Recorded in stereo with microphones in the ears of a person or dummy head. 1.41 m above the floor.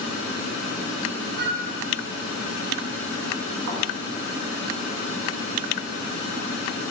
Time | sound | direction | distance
1.4 | a flute | 65° right (ahead or behind) | 3.5 m
3.7 | a thud | 65° right (ahead or behind) | 3 m